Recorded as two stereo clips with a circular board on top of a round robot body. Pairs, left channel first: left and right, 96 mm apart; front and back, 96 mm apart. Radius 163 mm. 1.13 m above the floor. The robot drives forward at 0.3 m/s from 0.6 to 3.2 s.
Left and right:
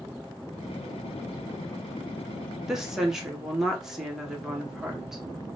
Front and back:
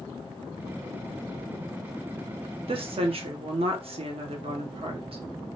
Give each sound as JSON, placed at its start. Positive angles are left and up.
{"t": 2.7, "sound": "a woman speaking", "azimuth_deg": -175, "distance_m": 0.9}